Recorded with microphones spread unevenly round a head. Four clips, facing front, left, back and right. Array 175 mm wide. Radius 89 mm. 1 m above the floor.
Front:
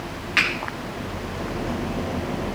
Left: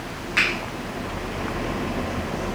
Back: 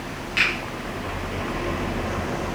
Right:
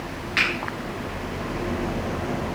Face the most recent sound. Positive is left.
turn(degrees=25)